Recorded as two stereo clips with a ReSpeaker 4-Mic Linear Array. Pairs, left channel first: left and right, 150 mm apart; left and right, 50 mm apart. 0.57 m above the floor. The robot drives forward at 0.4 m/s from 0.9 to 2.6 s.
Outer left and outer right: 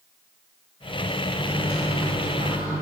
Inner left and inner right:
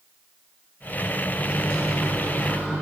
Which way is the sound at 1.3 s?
40° left (ahead or behind).